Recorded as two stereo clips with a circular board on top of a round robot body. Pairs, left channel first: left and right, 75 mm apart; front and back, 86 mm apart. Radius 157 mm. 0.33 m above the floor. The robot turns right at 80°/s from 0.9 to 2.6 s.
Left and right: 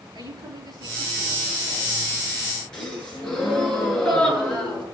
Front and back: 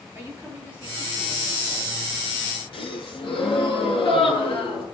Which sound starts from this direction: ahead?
A gasp, at 2.7 s.